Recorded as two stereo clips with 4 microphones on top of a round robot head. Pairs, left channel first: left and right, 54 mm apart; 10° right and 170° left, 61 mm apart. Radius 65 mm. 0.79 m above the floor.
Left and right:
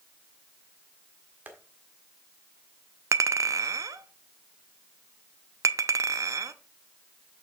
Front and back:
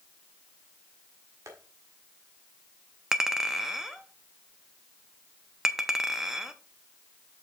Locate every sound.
1.5 s tapping: 145° right, 1.6 m
3.1 s a clink: 105° right, 0.5 m